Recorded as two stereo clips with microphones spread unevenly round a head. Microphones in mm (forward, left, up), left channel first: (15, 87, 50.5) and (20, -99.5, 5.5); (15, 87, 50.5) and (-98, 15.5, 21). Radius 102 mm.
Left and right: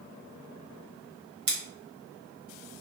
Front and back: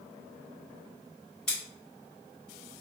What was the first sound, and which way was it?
Scissors, 55° right.